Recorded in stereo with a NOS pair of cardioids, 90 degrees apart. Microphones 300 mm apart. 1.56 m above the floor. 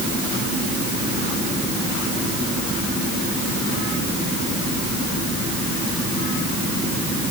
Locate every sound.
Only background noise.